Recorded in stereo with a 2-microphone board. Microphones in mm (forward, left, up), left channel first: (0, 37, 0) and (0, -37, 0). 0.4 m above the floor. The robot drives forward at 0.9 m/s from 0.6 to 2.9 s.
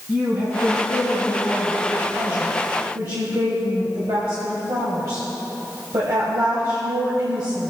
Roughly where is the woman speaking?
Right.